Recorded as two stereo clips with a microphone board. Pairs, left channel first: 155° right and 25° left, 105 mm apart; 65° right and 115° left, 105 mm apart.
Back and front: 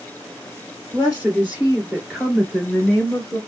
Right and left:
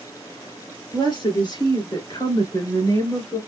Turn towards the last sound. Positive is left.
turn(degrees=-70)